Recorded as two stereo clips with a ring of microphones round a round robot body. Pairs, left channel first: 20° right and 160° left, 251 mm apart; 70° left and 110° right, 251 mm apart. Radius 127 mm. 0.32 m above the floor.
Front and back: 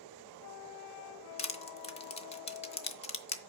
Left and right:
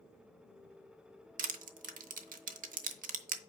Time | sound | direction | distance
1.4 | crushing | 75° right | 0.9 m